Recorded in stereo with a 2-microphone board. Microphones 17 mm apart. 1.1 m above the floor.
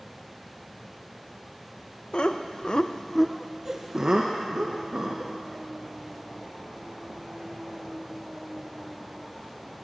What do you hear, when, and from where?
2.1 s laughter: 65° left (ahead or behind), 0.9 m; by 5.3 s 55° right (ahead or behind), 1.8 m